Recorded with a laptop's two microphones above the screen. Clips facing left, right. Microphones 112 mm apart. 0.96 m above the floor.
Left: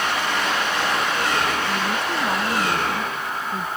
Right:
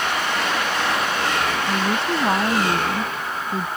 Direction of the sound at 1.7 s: 30° right (ahead or behind).